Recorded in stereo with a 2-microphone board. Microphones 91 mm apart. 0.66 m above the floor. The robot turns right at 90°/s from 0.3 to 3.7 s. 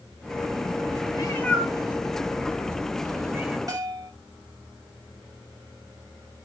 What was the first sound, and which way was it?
A cat meowing, 45° left (ahead or behind).